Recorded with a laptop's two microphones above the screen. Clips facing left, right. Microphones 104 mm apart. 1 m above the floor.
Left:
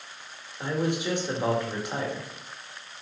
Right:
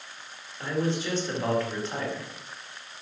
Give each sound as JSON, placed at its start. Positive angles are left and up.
{"t": 0.6, "sound": "a man speaking", "side_deg": 15, "distance_m": 2.0}